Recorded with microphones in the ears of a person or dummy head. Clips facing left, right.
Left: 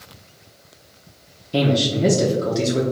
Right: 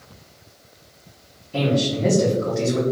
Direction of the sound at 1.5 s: 50° left (ahead or behind).